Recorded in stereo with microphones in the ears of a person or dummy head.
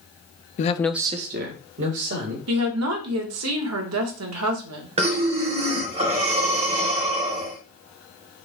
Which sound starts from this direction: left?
A man speaking, at 0.6 s.